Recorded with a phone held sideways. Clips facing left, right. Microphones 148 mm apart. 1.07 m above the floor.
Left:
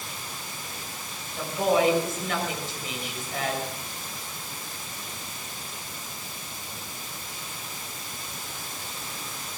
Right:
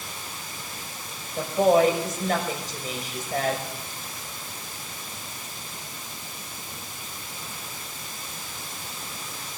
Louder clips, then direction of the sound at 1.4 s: Right 4 dB; 45° right (ahead or behind).